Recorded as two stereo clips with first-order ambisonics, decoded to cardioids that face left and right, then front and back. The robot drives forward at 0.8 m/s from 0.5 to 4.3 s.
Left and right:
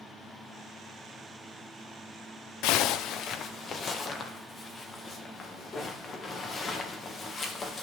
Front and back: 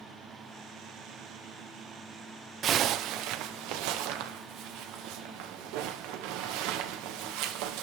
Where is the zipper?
120° left, 0.7 m; by 7.8 s 160° left, 1.8 m.